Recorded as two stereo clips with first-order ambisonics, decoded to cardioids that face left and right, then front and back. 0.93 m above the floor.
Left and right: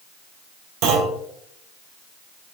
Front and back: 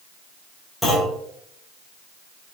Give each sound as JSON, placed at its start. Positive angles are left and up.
{"t": 0.8, "sound": "a clunk", "azimuth_deg": -90, "distance_m": 5.0}